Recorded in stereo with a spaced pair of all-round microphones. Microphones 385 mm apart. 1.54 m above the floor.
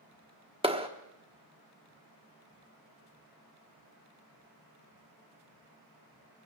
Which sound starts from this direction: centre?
A clap, at 0.6 s.